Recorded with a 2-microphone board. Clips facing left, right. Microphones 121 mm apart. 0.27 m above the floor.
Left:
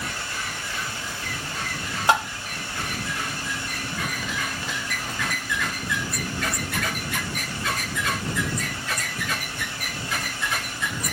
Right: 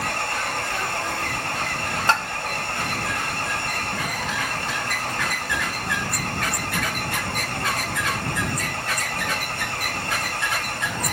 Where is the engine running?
60° right (ahead or behind).